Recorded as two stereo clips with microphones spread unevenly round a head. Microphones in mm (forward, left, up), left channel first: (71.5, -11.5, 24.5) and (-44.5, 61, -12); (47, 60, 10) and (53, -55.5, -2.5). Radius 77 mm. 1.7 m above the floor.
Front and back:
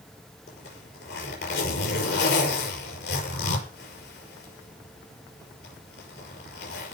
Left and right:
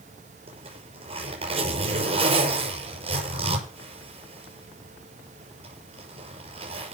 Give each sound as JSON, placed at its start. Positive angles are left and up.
{"t": 0.5, "sound": "a zipper", "azimuth_deg": -50, "distance_m": 6.5}